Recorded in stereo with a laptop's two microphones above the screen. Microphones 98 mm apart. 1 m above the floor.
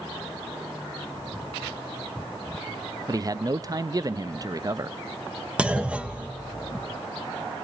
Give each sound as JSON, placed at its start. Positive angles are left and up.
{"t": 3.1, "sound": "a man speaking", "side_deg": -35, "distance_m": 0.7}
{"t": 5.6, "sound": "a clunk", "side_deg": -10, "distance_m": 1.3}